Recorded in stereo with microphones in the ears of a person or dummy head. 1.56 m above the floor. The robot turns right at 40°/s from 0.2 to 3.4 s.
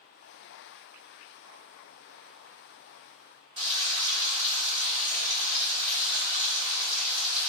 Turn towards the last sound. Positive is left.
turn(degrees=-35)  # may be behind; listen again after turning